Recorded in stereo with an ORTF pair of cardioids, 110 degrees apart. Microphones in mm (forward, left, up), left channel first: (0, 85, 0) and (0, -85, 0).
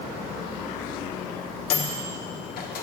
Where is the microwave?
60° left, 1.1 m.